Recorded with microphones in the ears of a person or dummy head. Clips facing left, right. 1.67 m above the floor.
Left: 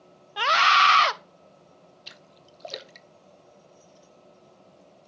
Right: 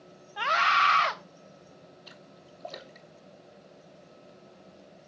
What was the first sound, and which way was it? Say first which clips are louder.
A scream: left 5 dB; 45° left (ahead or behind).